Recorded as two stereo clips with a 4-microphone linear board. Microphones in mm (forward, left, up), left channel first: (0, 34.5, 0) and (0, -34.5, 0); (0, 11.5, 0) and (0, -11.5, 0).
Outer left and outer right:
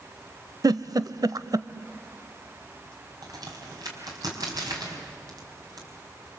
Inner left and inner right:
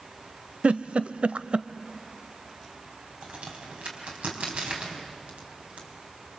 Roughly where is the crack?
Right.